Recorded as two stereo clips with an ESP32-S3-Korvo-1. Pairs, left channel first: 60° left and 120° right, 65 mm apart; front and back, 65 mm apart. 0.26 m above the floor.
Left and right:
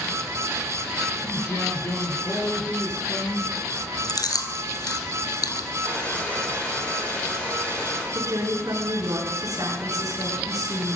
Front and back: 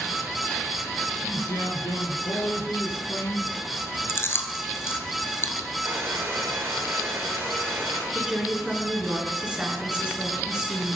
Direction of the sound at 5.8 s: 130° left.